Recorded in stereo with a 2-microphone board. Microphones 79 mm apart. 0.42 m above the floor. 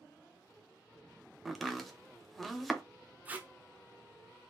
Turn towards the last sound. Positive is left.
turn(degrees=-20)  # may be behind; listen again after turning